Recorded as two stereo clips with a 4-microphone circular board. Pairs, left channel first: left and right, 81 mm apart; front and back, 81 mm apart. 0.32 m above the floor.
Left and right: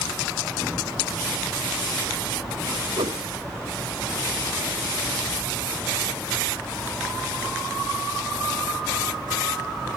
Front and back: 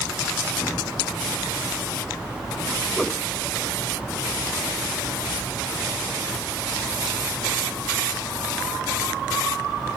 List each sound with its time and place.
3.0 s a whoosh: 85° right